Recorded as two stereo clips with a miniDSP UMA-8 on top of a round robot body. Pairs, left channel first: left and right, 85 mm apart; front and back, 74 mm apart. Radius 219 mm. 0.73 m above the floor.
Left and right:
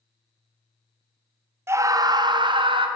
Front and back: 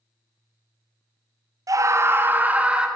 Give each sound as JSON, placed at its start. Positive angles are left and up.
{"t": 1.7, "sound": "a scream", "azimuth_deg": -145, "distance_m": 0.8}